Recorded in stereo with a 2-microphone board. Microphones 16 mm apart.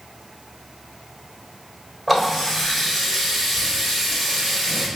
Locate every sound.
2.1 s a running tap: 10° right (ahead or behind), 1.4 m